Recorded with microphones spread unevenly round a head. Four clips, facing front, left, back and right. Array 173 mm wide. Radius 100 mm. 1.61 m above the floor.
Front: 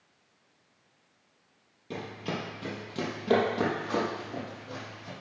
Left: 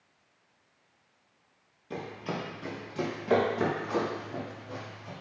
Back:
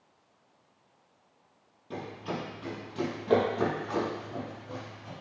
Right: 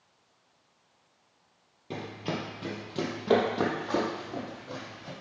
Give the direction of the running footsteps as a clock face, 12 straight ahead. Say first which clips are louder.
Right 1 dB, front 1 dB; 3 o'clock.